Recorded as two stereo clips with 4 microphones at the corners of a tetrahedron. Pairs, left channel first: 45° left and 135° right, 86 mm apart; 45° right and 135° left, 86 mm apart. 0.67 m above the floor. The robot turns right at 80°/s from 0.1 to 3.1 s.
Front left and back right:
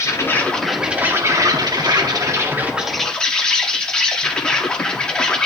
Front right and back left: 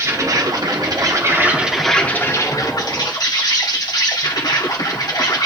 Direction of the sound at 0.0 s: 90° left.